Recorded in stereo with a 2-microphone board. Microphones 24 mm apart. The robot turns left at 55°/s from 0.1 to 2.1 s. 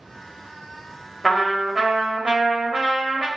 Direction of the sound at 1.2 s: 5° left.